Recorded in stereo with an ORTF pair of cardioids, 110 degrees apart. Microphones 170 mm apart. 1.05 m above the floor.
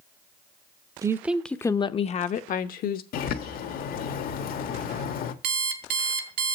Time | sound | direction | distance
1.0 | a woman speaking | 20° right | 0.8 m
3.1 | a bird | 65° left | 1.4 m
5.4 | an alarm clock | 70° right | 2 m